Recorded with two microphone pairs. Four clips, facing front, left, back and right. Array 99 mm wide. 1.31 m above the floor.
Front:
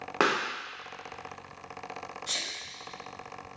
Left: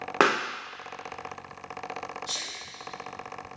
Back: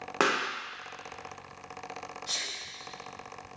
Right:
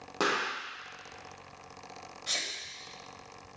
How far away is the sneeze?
About 1.6 m.